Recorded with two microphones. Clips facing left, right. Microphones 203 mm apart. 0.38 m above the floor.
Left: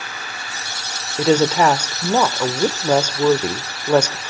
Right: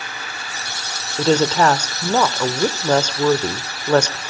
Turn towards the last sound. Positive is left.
turn(degrees=5)  # may be behind; listen again after turning